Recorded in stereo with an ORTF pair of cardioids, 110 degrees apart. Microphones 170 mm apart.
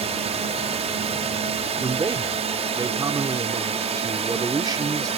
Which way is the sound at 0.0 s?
40° right.